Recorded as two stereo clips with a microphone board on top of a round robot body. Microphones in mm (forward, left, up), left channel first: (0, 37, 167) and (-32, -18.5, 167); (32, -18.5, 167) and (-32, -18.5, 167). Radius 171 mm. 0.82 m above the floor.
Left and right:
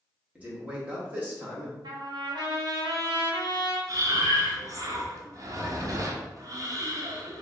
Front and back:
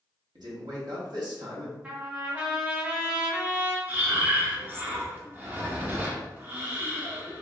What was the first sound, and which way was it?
A man speaking, 170° left.